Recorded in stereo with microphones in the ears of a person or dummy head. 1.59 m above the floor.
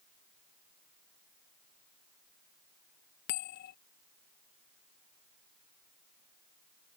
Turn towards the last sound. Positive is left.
turn(degrees=45)  # may be behind; listen again after turning